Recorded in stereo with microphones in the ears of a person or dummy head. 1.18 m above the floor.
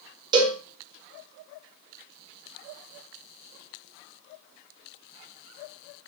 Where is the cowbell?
20° right (ahead or behind), 0.6 m.